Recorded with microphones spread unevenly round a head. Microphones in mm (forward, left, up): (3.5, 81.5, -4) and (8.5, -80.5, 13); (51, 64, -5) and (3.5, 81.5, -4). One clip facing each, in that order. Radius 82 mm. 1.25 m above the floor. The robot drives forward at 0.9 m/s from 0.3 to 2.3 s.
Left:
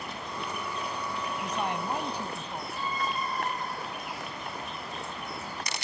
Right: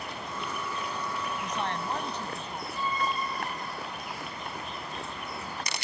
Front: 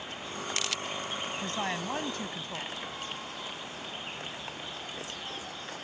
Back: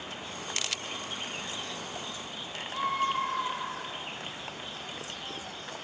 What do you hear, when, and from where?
1.4 s a woman speaking: 10° left
2.7 s a scream: 145° left